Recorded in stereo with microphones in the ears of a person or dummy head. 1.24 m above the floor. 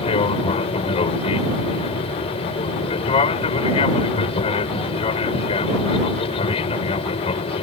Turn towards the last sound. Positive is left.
turn(degrees=30)  # may be behind; listen again after turning